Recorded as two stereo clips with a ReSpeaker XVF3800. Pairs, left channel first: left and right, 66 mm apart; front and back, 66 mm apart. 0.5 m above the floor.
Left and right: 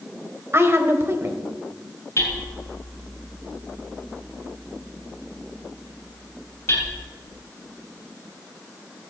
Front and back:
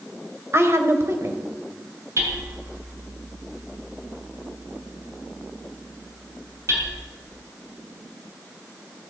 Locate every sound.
0.5 s a woman speaking: 135° right, 2 m
2.2 s hammering: 140° left, 5.5 m